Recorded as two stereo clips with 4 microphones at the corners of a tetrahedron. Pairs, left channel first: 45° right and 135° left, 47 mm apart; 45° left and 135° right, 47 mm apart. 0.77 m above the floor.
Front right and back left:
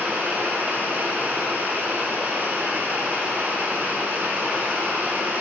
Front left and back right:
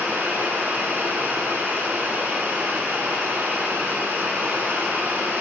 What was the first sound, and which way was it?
Running water, straight behind.